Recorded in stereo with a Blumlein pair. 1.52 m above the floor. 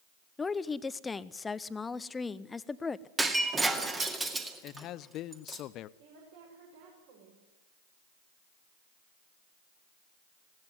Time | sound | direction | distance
0.4 | a woman speaking | 15° left | 0.8 m
3.2 | breaking glass | 10° right | 2 m
4.6 | a man speaking | 35° left | 0.7 m
6.0 | a woman speaking | 50° right | 6.5 m